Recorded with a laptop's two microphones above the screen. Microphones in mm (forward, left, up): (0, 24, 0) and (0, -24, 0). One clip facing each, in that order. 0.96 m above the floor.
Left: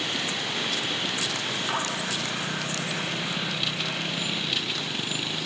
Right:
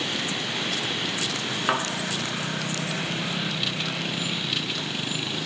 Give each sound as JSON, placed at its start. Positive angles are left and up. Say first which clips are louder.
{"t": 1.7, "sound": "a thud", "louder": "right 5 dB", "side_deg": -40, "distance_m": 4.0}